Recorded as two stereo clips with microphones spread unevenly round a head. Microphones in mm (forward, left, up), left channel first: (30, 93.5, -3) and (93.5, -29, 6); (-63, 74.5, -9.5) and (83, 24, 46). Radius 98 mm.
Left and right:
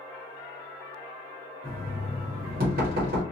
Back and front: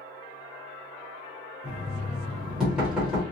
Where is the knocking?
100° right, 0.8 m.